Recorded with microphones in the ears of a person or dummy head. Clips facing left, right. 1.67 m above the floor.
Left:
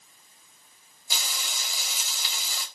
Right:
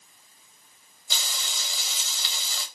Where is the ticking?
No ticking in this recording.